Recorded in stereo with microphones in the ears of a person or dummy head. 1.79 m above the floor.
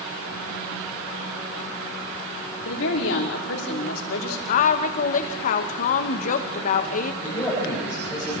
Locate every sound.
2.6 s a woman speaking: 85° left, 5 m
4.5 s a woman speaking: 45° left (ahead or behind), 1.8 m
7.2 s a man speaking: 10° left (ahead or behind), 9.5 m